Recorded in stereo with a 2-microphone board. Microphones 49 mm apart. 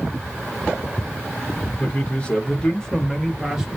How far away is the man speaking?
About 1.4 m.